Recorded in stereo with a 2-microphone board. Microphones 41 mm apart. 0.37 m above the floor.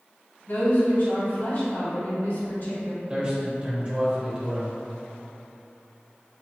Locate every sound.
0.5 s a woman speaking: 60° left (ahead or behind), 1.8 m
3.1 s a man speaking: 25° right (ahead or behind), 1.3 m